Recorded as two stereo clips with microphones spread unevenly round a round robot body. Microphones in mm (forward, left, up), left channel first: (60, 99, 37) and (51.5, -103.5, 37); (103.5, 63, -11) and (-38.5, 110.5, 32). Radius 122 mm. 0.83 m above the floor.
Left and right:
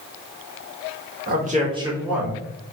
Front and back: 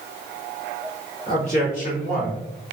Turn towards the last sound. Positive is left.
turn(degrees=5)